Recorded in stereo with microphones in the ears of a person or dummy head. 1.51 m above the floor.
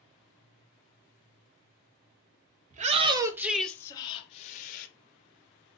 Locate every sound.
2.7 s a shout: 45° right (ahead or behind), 0.7 m; by 4.9 s 45° left (ahead or behind), 0.9 m